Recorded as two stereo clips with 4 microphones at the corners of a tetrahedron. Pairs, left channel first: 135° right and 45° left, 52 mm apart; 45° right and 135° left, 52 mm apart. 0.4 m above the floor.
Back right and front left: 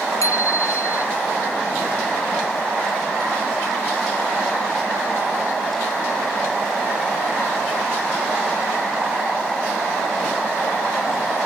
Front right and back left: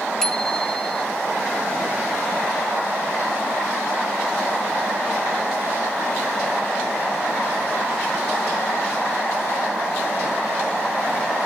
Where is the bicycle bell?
125° right.